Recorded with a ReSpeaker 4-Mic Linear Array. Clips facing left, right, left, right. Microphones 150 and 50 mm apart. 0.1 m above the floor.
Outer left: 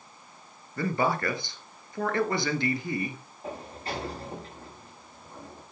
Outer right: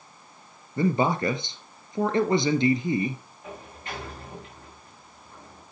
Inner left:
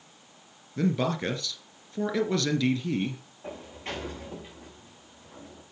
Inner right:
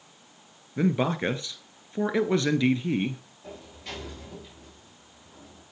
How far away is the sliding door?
About 4.5 m.